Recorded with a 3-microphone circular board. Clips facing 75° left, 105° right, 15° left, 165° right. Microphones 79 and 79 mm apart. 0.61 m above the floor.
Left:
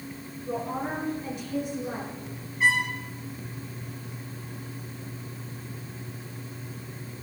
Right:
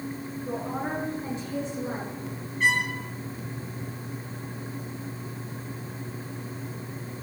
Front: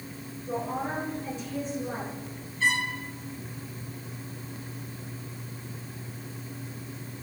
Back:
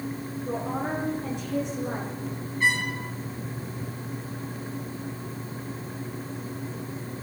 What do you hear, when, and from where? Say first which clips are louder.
0.5 s a woman speaking: left 1 dB, back 1 dB; 165° right, 8 m
2.6 s a trumpet: left 1 dB, back 2 dB; 160° left, 7 m